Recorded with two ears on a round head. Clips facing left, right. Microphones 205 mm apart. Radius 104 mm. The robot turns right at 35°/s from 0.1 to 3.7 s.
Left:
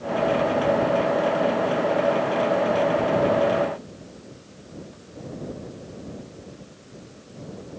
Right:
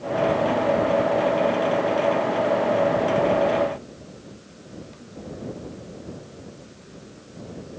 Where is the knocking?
No knocking in this recording.